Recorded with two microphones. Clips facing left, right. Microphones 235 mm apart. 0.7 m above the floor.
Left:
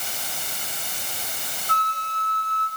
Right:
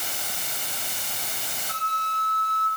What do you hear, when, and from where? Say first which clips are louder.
1.7 s a flute: left 6 dB; 10° right (ahead or behind), 2.5 m